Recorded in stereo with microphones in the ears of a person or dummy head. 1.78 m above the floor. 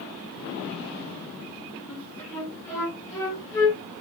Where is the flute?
5° left (ahead or behind), 2.0 m.